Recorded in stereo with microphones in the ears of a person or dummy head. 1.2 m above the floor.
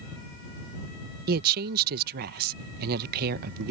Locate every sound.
1.3 s a woman speaking: 50° right (ahead or behind)